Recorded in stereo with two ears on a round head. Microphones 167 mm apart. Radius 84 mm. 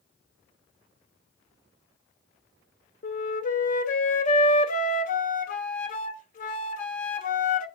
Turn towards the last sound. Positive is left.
turn(degrees=45)  # may be behind; listen again after turning